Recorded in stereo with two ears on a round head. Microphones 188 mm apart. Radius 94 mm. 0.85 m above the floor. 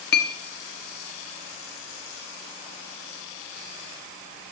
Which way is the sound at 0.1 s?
50° left (ahead or behind).